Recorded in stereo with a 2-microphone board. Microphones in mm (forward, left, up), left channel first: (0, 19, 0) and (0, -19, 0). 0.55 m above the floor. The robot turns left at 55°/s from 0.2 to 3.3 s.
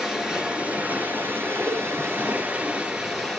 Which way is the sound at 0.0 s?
15° right.